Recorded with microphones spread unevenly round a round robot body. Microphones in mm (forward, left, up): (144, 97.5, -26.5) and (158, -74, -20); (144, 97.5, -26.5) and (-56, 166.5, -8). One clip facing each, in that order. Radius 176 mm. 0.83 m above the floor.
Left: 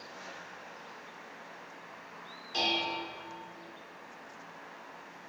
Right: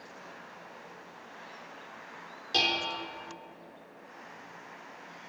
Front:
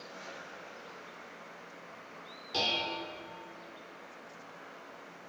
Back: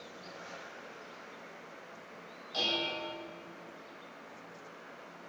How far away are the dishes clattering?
About 1.4 m.